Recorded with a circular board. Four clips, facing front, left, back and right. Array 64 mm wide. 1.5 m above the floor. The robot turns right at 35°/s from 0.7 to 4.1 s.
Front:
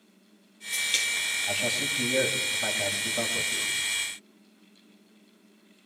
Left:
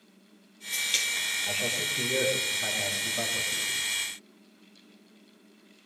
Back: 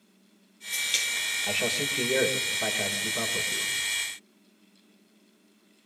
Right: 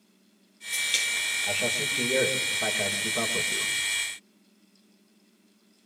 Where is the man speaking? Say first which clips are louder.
Right 4 dB, back 2 dB; 175° left, 6.5 m; by 3.7 s 105° right, 6.5 m.